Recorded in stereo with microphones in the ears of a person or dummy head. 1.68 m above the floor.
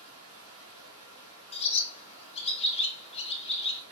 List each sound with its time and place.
0.0 s running water: 60° right (ahead or behind), 1.7 m
1.5 s a bird: 25° left (ahead or behind), 0.5 m